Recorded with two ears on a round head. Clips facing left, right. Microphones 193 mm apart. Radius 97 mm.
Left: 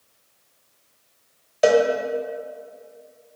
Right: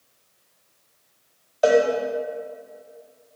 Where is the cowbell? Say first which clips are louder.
Left 1 dB; 30° left (ahead or behind), 0.8 m.